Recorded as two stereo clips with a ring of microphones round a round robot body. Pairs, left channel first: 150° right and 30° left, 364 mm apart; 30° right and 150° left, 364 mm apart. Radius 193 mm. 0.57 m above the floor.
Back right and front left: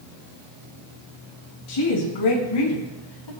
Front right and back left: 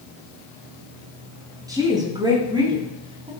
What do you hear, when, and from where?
1.7 s a woman speaking: 130° right, 8 m; by 3.3 s 135° right, 5.5 m